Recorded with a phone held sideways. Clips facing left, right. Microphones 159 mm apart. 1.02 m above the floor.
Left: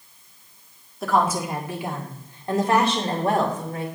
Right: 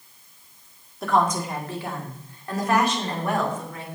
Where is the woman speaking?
Centre (ahead or behind), 1.8 m; by 3.9 s 40° left (ahead or behind), 3 m.